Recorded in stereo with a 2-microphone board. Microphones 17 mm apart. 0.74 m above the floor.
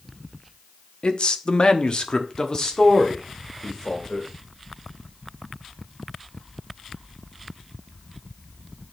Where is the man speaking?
55° left (ahead or behind), 0.8 m; by 4.3 s 25° left (ahead or behind), 2.5 m.